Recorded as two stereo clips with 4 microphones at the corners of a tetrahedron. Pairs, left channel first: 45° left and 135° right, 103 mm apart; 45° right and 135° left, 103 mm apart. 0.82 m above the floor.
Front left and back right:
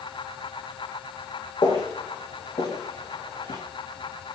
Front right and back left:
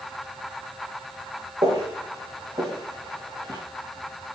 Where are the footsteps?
90° left, 4 m.